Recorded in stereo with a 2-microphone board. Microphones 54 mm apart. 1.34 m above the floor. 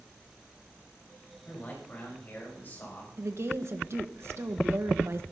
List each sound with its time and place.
1.4 s a man speaking: 35° left (ahead or behind), 9 m; by 3.1 s 40° left (ahead or behind), 7.5 m
3.2 s a woman speaking: 60° right (ahead or behind), 1.5 m